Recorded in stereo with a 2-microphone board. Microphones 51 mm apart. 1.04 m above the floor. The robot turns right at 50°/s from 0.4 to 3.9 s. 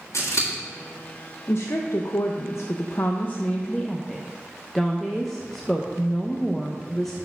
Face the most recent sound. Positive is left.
turn(degrees=175)